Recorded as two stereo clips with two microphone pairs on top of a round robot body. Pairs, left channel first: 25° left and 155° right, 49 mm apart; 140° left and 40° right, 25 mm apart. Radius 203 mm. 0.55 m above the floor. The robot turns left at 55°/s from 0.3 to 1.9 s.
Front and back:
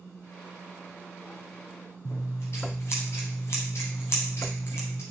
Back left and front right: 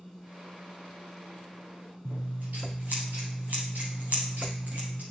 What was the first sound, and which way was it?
Scissors, 15° right.